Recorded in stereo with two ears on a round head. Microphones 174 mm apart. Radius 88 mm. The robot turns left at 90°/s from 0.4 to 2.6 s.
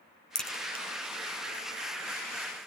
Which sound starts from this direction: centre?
A crack, at 0.3 s.